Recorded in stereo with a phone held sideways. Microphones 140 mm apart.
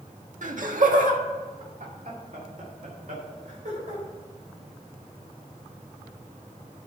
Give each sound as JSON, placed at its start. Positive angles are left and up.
{"t": 0.4, "sound": "laughter", "side_deg": -65, "distance_m": 1.4}